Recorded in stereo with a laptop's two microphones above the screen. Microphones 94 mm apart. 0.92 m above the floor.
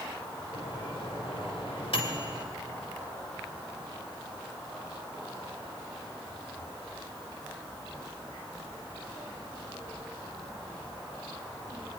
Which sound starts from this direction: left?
A microwave, at 0.5 s.